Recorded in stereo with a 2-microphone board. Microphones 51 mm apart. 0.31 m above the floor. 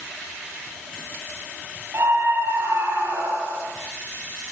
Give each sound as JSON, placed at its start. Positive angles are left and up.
{"t": 1.9, "sound": "a scream", "side_deg": -60, "distance_m": 9.0}